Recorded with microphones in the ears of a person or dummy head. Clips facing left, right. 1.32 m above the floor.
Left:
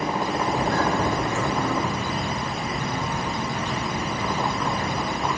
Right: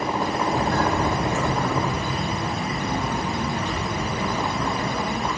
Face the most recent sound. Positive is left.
turn(degrees=-50)  # may be behind; listen again after turning